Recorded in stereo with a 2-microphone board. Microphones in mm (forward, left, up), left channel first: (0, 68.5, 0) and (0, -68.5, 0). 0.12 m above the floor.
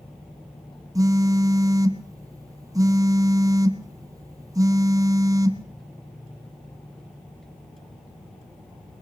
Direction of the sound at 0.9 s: 25° right (ahead or behind).